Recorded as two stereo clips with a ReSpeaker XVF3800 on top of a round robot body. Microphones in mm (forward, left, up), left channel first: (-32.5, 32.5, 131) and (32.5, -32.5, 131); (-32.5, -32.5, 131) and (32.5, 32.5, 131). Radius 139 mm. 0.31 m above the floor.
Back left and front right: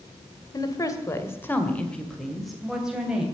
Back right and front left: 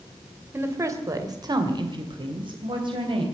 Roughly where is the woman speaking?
Left.